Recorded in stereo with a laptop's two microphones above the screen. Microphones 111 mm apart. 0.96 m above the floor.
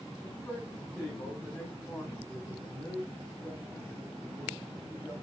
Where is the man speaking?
25° left (ahead or behind), 7.5 m; by 5.1 s 10° right (ahead or behind), 7 m.